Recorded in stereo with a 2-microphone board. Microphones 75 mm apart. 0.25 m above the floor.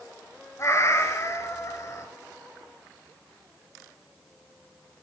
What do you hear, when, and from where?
0.6 s a cat meowing: 40° left (ahead or behind), 0.9 m